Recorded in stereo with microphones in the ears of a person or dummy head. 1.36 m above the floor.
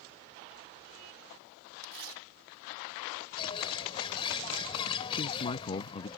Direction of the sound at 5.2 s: 30° left (ahead or behind).